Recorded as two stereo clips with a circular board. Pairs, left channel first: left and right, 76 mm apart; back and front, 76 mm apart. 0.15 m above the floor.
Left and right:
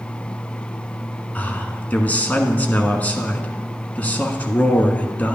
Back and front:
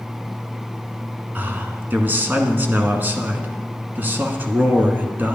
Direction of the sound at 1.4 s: 40° left.